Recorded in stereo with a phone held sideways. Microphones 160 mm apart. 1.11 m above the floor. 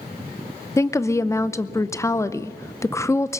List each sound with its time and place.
0.8 s a woman speaking: 15° left (ahead or behind), 0.6 m